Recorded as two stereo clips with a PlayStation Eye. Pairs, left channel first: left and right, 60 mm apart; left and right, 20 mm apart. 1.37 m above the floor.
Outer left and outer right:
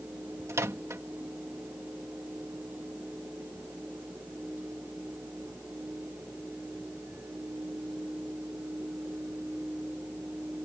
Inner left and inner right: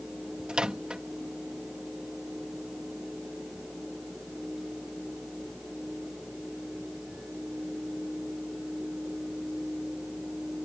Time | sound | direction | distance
0.5 | a microwave | 50° right (ahead or behind) | ?